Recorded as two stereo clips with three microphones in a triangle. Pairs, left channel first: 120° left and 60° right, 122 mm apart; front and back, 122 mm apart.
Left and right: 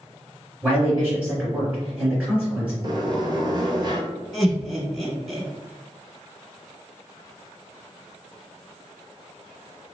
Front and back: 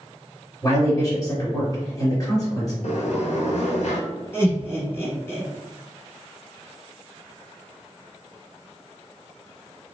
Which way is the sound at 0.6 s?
10° left.